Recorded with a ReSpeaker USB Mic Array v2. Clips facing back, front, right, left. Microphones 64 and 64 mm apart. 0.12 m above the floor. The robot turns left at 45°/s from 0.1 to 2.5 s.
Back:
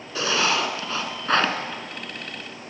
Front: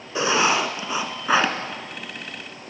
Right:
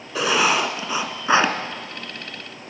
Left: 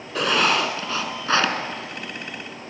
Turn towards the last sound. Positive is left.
turn(degrees=-115)